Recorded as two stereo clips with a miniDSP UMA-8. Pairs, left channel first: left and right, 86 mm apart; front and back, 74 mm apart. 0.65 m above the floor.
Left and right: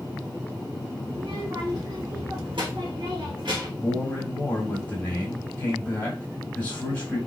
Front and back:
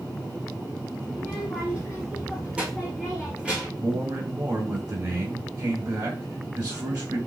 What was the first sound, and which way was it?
A child speaking, 105° right.